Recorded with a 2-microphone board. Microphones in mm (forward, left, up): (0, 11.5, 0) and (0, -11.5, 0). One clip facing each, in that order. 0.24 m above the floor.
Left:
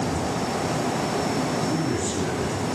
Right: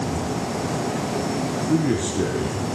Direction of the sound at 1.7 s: 75° right (ahead or behind).